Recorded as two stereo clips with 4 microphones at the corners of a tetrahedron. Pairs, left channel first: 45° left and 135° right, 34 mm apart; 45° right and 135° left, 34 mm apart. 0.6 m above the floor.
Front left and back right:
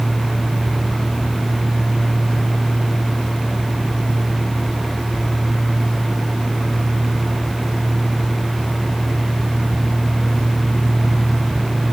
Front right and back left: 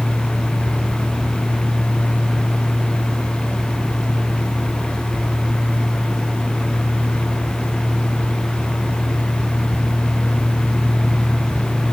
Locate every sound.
Only background noise.